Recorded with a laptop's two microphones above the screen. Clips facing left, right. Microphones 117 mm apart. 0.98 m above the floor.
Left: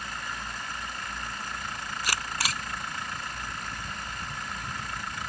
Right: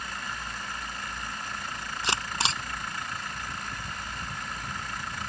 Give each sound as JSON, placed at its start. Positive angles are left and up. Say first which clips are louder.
{"t": 2.0, "sound": "a camera shutter", "louder": "right 3 dB", "side_deg": -25}